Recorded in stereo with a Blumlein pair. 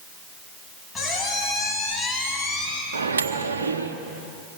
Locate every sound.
0.9 s a squeak: 10° left, 4 m
2.9 s a microwave: 70° right, 1.4 m